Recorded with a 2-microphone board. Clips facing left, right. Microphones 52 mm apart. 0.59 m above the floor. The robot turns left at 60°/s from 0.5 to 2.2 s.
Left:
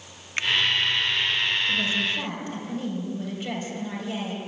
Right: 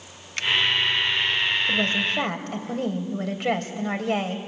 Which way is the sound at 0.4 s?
25° left (ahead or behind).